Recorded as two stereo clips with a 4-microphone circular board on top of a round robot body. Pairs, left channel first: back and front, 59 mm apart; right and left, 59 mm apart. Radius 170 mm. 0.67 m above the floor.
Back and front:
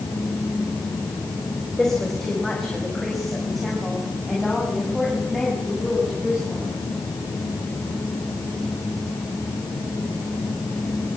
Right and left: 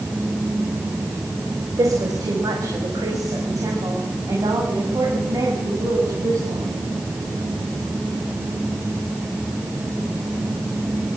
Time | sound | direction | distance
1.8 | a woman speaking | 95° left | 4.5 m